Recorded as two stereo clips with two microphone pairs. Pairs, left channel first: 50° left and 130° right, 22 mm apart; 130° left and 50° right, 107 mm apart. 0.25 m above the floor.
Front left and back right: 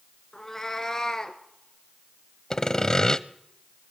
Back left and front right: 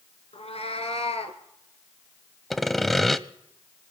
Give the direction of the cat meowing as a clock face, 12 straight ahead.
8 o'clock.